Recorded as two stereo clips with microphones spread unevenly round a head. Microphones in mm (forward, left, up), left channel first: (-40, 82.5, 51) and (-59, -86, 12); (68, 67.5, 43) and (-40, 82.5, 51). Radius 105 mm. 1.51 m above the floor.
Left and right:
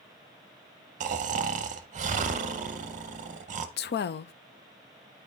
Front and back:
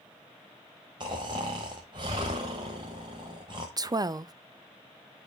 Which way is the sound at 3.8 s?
115° left.